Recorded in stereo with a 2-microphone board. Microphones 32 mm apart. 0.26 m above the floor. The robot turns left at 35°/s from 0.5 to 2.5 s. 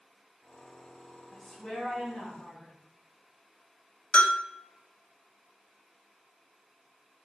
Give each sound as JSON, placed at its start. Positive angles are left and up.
{"t": 1.3, "sound": "a woman speaking", "azimuth_deg": 170, "distance_m": 1.6}
{"t": 4.1, "sound": "a bell", "side_deg": 40, "distance_m": 0.5}